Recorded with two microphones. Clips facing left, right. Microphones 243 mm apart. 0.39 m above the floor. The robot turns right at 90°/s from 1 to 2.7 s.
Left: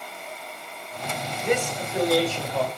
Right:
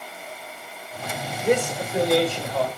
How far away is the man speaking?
About 1.6 m.